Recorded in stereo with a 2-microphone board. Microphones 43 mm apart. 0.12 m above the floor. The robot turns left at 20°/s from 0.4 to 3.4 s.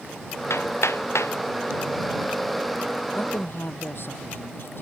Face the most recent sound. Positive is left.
turn(degrees=55)  # may be behind; listen again after turning